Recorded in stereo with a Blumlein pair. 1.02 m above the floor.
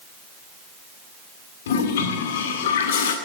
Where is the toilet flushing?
60° left, 1.9 m.